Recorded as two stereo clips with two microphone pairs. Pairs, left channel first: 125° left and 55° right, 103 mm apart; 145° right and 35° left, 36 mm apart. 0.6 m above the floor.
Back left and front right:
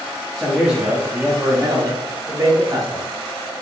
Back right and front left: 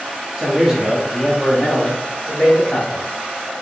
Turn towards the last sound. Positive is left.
turn(degrees=-95)